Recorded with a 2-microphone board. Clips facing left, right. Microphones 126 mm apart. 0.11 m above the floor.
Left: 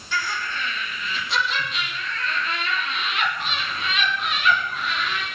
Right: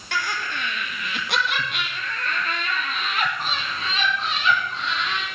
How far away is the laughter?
About 3 m.